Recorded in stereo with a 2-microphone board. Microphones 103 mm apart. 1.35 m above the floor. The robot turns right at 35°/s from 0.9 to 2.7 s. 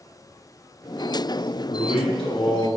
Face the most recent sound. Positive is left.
turn(degrees=140)